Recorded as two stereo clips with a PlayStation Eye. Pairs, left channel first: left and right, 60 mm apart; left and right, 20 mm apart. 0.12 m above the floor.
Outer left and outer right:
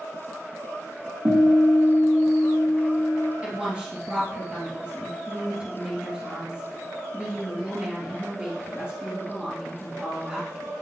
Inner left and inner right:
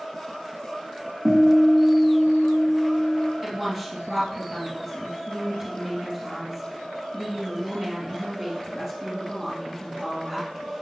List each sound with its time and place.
1.2 s a guitar: 70° right (ahead or behind), 4 m
3.4 s a woman speaking: 20° right (ahead or behind), 2.5 m